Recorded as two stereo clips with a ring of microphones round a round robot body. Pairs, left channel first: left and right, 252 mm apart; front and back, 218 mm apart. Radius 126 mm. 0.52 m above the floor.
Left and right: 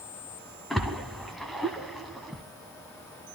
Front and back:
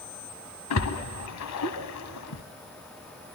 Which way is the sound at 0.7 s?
Straight ahead.